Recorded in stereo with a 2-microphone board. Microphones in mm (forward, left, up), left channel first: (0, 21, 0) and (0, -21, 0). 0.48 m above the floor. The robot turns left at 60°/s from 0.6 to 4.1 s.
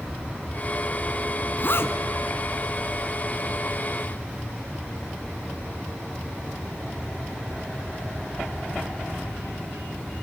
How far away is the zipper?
About 1.1 m.